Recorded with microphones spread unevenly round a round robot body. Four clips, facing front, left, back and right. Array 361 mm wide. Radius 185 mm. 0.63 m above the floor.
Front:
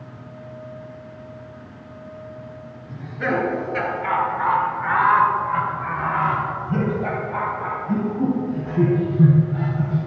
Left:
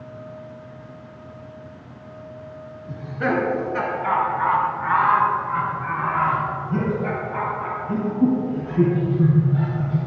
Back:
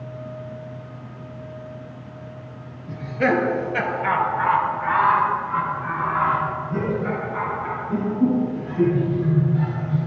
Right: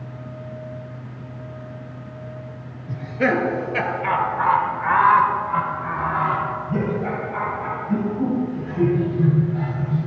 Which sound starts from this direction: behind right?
Laughter, at 2.9 s.